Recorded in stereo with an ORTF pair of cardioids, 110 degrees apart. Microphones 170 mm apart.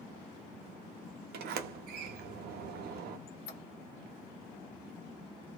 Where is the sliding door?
70° right, 0.7 m.